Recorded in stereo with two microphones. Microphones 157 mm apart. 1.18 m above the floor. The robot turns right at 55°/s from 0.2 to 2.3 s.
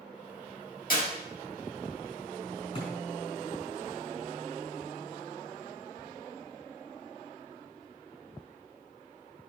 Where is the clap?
70° left (ahead or behind), 4.5 m; by 1.1 s 60° left (ahead or behind), 4.5 m.